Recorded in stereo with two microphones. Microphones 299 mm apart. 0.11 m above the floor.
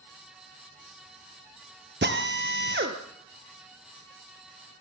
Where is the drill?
35° right (ahead or behind), 2 m.